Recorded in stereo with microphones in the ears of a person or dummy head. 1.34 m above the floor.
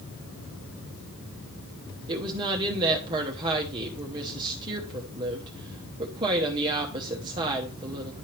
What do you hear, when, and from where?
2.1 s a woman speaking: 25° right (ahead or behind), 0.9 m